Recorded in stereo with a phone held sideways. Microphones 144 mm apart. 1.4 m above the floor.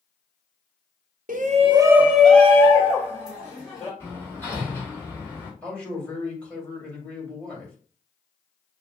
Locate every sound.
1.3 s a shout: 65° right (ahead or behind), 0.7 m; by 3.9 s 30° left (ahead or behind), 2.5 m
4.0 s hammering: 15° left (ahead or behind), 2 m
5.6 s a man speaking: 10° left (ahead or behind), 2.5 m